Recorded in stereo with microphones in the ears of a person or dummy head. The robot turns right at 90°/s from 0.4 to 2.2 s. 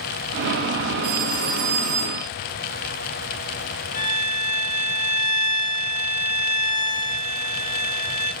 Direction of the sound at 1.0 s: 125° right.